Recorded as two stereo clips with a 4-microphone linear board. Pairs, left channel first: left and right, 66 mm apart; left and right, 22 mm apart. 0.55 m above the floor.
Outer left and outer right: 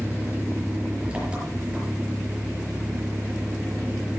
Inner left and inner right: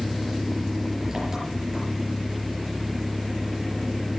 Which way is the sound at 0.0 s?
15° right (ahead or behind).